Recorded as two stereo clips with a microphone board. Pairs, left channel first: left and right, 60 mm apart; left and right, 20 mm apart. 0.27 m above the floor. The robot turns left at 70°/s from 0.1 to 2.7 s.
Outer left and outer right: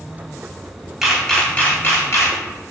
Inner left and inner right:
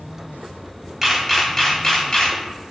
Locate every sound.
1.0 s a camera shutter: 5° right (ahead or behind), 0.7 m; by 2.4 s 55° left (ahead or behind), 0.7 m